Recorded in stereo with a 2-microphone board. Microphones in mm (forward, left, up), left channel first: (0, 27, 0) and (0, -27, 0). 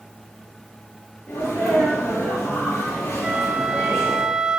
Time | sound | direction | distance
1.3 | a sneeze | 35° left (ahead or behind) | 7.5 m
3.2 | a flute | 10° right (ahead or behind) | 0.7 m